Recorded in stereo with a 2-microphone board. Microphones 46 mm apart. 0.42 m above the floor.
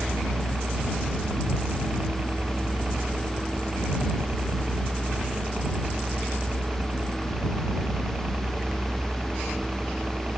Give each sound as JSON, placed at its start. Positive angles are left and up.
{"t": 0.0, "sound": "a helicopter", "side_deg": -40}